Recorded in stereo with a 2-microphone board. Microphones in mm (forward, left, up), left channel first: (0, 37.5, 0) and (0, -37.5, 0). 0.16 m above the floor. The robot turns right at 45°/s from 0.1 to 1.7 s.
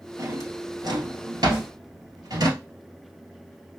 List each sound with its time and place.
0.2 s a drawer: 45° right (ahead or behind), 1.5 m; by 2.5 s 60° right (ahead or behind), 1.5 m
1.5 s a snare drum: 15° right (ahead or behind), 2 m; by 1.7 s 10° right (ahead or behind), 2 m